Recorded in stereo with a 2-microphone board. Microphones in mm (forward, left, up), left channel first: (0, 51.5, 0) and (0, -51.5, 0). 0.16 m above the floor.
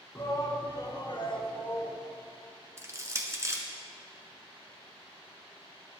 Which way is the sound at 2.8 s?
30° right (ahead or behind).